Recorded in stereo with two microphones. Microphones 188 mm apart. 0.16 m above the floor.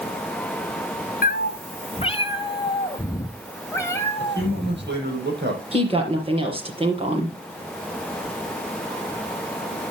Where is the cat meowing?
55° left (ahead or behind), 0.5 m; by 5.0 s 10° left (ahead or behind), 2 m.